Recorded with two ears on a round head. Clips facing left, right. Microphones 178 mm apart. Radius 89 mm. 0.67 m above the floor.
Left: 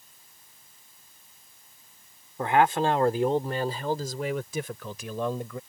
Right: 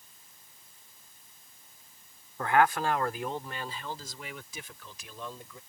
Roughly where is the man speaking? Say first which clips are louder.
Left 3 dB; centre.